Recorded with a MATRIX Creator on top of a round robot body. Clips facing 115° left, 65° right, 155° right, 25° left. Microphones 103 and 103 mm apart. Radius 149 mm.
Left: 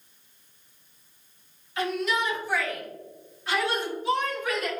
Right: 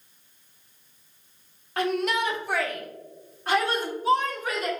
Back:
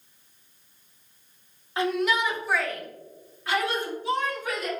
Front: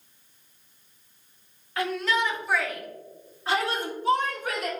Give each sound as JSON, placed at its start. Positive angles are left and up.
{"t": 1.8, "sound": "a shout", "azimuth_deg": -95, "distance_m": 1.4}